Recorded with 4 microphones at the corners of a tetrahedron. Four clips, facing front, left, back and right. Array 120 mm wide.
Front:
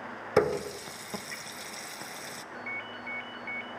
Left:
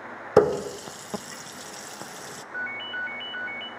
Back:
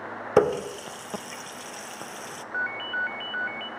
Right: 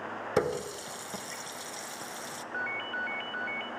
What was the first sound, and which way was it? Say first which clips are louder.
A running tap: left 10 dB, back 5 dB; 110° left.